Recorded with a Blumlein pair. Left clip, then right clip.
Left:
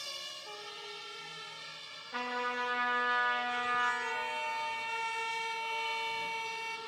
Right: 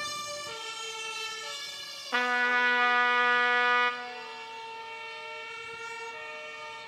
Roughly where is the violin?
Ahead left.